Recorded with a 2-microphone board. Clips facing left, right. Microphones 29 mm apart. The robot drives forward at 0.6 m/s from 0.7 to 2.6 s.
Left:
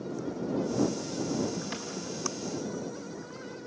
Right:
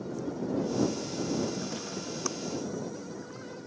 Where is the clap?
45° left (ahead or behind), 4 m.